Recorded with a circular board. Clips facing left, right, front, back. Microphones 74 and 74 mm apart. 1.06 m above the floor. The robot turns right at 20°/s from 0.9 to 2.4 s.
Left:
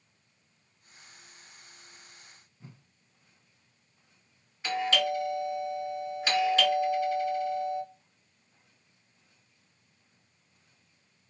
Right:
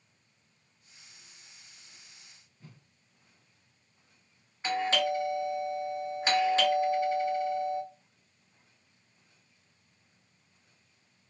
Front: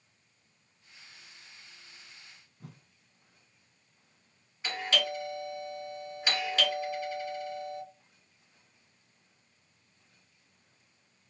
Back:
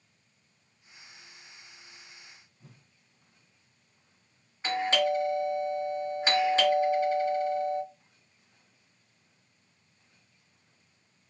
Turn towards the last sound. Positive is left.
turn(degrees=-135)